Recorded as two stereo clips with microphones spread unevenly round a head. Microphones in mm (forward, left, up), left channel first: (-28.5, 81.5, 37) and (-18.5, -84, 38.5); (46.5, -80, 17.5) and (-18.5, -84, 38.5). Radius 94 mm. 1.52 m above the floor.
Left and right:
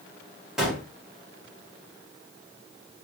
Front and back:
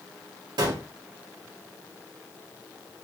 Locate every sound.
0.6 s a gunshot: 170° right, 1.5 m